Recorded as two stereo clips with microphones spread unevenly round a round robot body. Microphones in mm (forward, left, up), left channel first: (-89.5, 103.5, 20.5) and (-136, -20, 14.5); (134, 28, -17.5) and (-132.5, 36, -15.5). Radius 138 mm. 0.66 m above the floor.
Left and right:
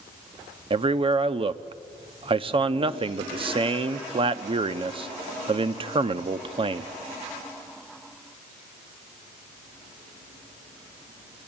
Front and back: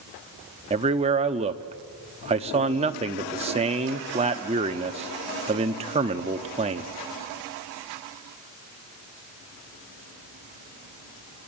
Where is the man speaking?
120° right, 0.8 m.